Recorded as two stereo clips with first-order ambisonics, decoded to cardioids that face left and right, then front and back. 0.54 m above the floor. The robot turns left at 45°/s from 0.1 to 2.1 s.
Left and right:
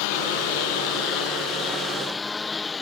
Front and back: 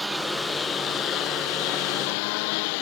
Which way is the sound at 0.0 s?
95° left.